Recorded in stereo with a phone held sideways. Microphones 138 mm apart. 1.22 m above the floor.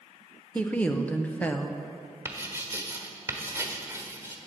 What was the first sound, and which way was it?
A woman speaking, 10° left (ahead or behind).